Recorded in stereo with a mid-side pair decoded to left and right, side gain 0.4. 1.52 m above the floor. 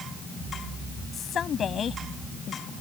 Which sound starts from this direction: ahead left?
A woman speaking, at 1.1 s.